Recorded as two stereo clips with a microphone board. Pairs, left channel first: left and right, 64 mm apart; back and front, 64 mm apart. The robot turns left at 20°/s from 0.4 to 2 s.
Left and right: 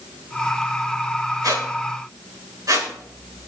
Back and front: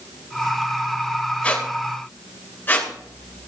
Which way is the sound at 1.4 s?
110° right.